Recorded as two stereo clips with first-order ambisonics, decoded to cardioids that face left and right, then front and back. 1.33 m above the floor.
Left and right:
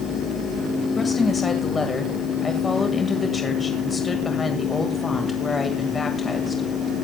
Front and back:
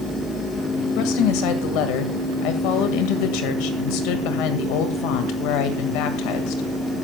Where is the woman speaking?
15° left, 1.8 m.